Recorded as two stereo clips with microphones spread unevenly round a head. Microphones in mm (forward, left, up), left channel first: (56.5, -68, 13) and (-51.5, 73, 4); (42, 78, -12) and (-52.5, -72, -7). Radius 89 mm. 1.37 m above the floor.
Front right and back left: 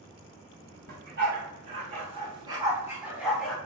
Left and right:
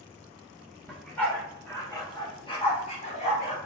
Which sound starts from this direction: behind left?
A dog barking, at 0.9 s.